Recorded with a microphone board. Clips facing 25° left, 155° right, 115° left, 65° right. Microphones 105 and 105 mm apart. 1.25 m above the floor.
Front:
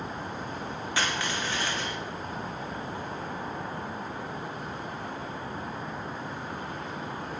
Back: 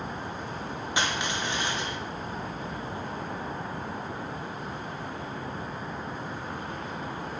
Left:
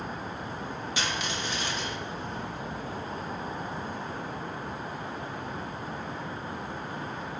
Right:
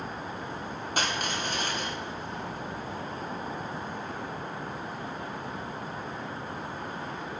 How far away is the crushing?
About 0.6 m.